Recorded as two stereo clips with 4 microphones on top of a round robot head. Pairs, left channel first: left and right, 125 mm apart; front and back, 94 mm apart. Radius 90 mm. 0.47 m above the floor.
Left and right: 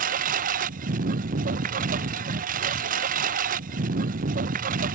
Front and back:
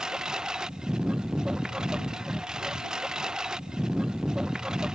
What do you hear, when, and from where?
0.0 s a lawn mower: 95° right